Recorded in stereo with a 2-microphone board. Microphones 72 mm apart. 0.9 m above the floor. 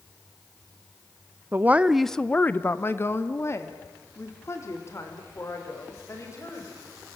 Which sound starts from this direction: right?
A woman speaking, at 1.5 s.